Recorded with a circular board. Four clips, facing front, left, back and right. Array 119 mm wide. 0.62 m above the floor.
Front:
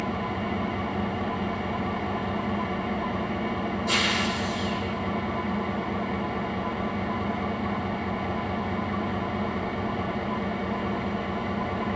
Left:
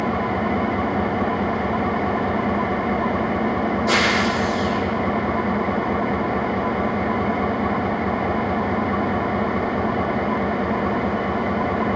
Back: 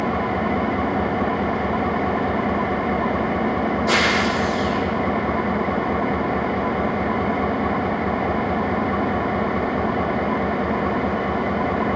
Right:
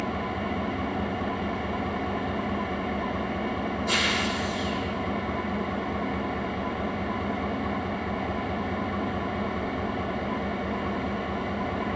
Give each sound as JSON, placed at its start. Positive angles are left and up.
{"t": 0.0, "sound": "an engine running", "azimuth_deg": 135, "distance_m": 0.9}